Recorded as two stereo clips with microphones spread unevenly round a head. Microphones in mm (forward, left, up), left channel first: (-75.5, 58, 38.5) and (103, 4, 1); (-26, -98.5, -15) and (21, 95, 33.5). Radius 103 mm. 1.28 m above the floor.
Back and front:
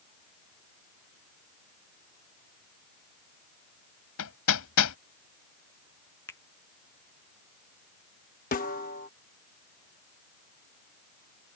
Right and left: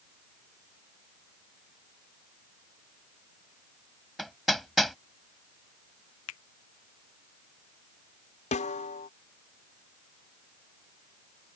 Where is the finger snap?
115° right.